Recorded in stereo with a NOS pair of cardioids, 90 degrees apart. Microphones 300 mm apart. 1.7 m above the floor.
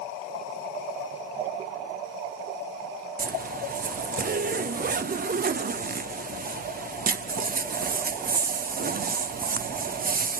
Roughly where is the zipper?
Ahead right.